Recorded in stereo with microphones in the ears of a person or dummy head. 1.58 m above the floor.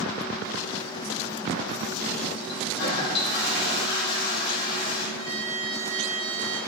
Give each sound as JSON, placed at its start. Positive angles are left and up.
{"t": 2.5, "sound": "a toilet flushing", "side_deg": 65, "distance_m": 5.0}
{"t": 5.2, "sound": "a violin", "side_deg": -20, "distance_m": 6.5}